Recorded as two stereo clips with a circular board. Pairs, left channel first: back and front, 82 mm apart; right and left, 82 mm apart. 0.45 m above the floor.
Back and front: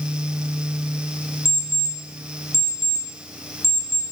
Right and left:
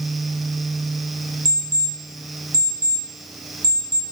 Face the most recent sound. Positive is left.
turn(degrees=130)